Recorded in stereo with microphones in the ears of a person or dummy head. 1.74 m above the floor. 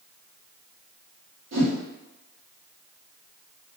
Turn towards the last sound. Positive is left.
turn(degrees=-80)